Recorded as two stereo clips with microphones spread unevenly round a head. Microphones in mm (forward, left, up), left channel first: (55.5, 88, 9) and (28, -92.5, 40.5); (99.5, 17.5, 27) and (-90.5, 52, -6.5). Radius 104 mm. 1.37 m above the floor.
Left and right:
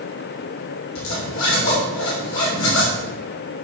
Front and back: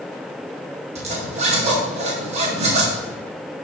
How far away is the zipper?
About 5.5 m.